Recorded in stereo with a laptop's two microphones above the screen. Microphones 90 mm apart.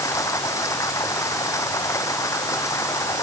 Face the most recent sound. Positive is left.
turn(degrees=35)  # may be behind; listen again after turning